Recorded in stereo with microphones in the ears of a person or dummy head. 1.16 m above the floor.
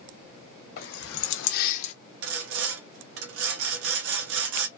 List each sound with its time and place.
0.8 s keys jangling: 50° left (ahead or behind), 1.0 m; by 1.9 s 35° left (ahead or behind), 0.8 m
2.2 s sawing: 75° right (ahead or behind), 0.6 m